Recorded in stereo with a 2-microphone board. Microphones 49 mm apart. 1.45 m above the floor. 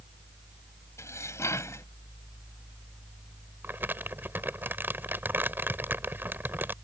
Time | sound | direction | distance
1.0 | dishes clattering | 85° left | ?
3.6 | crumpling | 50° right (ahead or behind) | ?